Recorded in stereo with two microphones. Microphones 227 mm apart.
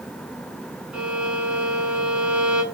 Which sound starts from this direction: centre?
A violin, at 0.9 s.